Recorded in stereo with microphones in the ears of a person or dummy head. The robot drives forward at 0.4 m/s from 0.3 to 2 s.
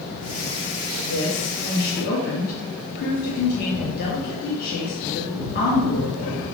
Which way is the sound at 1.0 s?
50° left (ahead or behind).